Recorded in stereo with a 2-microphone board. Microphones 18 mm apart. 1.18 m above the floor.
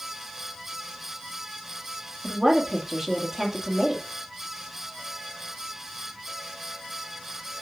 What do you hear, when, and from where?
2.2 s a woman speaking: 25° right (ahead or behind), 1.9 m